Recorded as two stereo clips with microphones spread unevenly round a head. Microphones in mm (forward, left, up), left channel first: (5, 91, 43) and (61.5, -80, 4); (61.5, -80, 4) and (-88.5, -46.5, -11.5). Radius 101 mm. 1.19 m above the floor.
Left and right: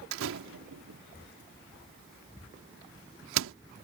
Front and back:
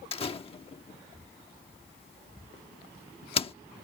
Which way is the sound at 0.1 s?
65° right.